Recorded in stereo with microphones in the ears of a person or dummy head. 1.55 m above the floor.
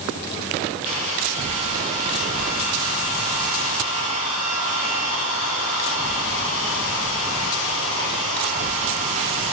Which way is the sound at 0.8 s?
65° left (ahead or behind).